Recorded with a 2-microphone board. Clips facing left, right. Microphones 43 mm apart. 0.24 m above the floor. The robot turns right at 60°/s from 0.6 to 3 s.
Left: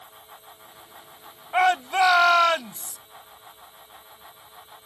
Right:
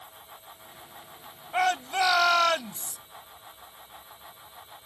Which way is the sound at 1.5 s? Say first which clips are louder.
Left 5 dB; 25° left (ahead or behind).